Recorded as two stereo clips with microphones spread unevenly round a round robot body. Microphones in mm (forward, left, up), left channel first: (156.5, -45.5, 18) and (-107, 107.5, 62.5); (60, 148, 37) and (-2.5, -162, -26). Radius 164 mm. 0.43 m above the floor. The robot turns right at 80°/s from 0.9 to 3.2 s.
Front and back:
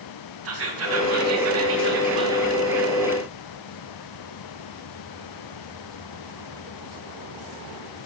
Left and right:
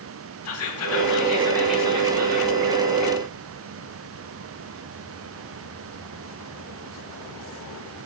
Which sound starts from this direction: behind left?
Whispering, at 0.5 s.